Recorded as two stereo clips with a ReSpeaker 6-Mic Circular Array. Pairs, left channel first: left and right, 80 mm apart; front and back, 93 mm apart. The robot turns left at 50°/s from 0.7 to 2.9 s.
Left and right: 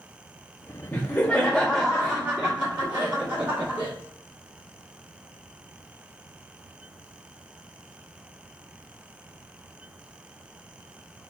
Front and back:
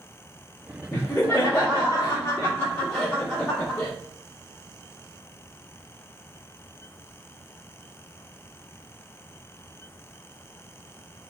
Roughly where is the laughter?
Ahead left.